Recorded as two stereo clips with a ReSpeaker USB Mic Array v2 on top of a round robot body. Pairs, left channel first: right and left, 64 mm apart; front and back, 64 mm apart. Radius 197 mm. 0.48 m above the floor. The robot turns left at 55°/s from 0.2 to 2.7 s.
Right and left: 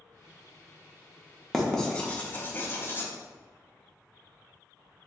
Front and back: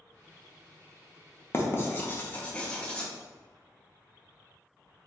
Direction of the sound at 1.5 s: Straight ahead.